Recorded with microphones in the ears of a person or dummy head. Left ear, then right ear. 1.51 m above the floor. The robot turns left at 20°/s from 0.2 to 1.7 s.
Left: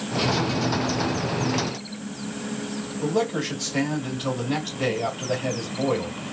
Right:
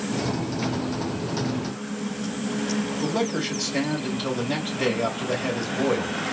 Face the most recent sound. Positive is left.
turn(degrees=-25)  # may be behind; listen again after turning